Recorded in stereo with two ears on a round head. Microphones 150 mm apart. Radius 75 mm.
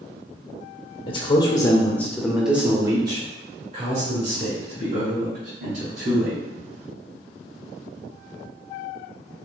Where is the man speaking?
35° left (ahead or behind), 1.1 m; by 6.4 s 55° right (ahead or behind), 2.5 m.